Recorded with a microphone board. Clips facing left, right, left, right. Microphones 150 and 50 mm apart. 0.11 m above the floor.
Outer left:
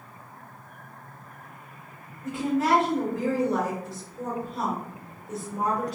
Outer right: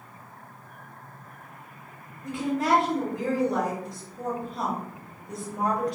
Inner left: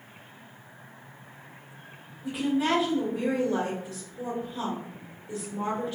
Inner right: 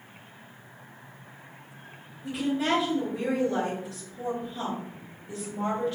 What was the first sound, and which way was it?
A woman speaking, 5° left (ahead or behind).